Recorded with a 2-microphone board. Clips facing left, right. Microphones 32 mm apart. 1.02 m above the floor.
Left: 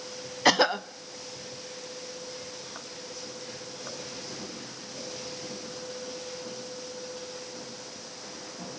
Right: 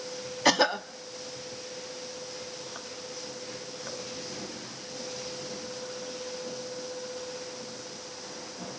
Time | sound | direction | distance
0.5 | a cough | 10° left (ahead or behind) | 0.6 m